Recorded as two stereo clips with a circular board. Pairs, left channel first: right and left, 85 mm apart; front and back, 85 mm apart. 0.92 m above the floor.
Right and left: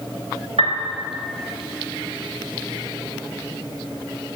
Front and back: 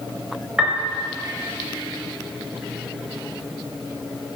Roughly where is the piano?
Left.